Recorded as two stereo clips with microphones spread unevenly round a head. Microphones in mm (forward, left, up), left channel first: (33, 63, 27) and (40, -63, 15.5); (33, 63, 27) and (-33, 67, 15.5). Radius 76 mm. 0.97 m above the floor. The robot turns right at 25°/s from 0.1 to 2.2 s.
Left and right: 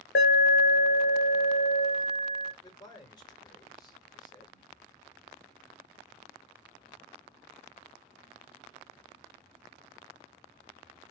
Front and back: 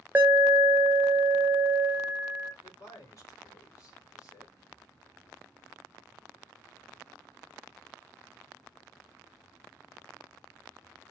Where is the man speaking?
35° left, 1.7 m.